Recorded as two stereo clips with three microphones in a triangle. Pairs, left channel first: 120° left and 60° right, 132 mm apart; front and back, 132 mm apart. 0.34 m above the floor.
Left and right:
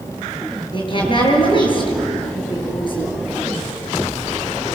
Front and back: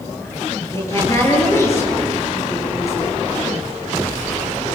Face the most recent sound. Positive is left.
turn(degrees=70)